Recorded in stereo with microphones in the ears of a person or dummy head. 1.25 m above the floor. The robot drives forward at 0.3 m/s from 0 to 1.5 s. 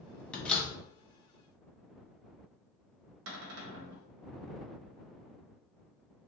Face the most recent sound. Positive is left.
turn(degrees=-70)  # may be behind; listen again after turning